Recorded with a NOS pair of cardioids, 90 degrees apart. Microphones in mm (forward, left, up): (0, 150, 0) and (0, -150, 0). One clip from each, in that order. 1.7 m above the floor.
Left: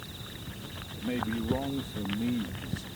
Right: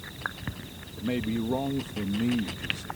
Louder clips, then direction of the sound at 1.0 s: Right 2 dB; 25° right.